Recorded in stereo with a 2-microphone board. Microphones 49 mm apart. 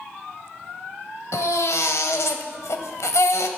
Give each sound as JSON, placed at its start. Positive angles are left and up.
{"t": 1.3, "sound": "a baby crying", "side_deg": 85, "distance_m": 1.2}